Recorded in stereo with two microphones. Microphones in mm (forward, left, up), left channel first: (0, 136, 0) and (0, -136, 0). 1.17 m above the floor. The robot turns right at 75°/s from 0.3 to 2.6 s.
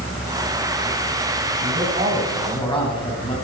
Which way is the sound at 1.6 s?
55° right.